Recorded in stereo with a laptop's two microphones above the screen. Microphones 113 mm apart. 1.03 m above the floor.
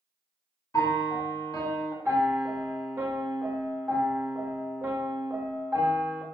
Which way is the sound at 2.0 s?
20° right (ahead or behind).